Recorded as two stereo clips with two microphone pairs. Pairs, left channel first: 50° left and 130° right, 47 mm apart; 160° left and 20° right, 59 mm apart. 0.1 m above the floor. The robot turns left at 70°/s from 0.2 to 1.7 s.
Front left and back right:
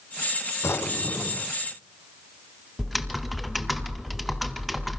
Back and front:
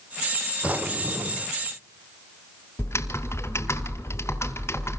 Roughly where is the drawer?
Ahead left.